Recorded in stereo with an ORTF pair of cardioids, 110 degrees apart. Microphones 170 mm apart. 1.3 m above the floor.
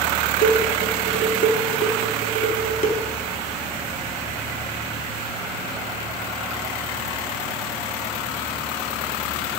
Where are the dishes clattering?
50° left, 1.8 m.